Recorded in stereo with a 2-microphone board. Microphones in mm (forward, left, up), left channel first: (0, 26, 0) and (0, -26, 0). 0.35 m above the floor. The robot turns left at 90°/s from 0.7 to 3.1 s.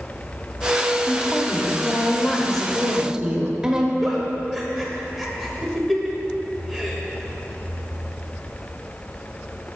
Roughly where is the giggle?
Centre.